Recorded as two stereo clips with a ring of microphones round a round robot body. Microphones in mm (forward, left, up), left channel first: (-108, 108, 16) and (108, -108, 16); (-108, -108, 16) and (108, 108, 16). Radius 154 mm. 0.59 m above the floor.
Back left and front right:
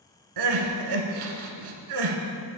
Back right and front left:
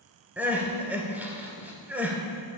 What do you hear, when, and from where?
0.4 s crying: 40° right, 1.2 m